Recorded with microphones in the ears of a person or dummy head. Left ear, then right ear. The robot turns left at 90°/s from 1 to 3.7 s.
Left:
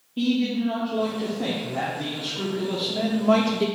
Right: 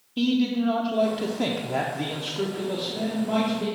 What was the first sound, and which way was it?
A man speaking, 30° right.